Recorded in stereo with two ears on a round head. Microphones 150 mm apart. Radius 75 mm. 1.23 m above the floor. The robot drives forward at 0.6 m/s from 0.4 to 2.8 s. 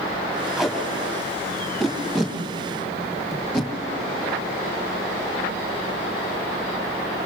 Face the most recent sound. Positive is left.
turn(degrees=5)  # may be behind; listen again after turning